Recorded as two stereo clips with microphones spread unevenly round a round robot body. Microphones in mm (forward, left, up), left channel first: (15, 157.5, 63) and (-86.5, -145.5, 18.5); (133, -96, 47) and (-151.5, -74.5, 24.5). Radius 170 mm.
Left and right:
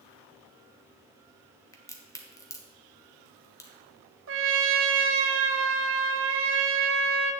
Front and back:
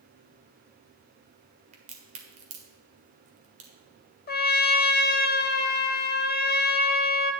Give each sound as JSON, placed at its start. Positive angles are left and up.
{"t": 1.7, "sound": "a crack", "azimuth_deg": 155, "distance_m": 1.4}
{"t": 4.3, "sound": "a trumpet", "azimuth_deg": -65, "distance_m": 0.9}